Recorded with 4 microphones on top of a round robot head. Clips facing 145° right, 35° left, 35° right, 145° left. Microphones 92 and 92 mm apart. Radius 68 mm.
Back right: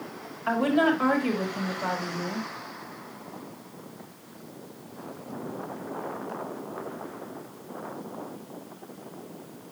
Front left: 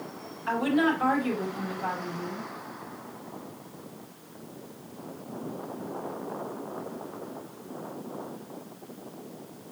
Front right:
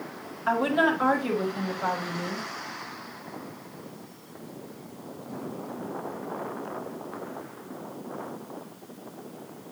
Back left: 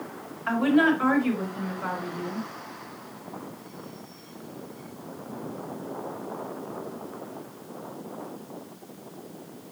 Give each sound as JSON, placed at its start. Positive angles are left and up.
{"t": 0.5, "sound": "a woman speaking", "azimuth_deg": -105, "distance_m": 5.0}